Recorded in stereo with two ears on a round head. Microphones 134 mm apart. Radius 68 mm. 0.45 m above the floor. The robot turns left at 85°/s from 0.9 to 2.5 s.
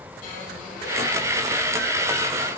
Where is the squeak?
120° left, 3.5 m; by 2.6 s 15° right, 3.5 m.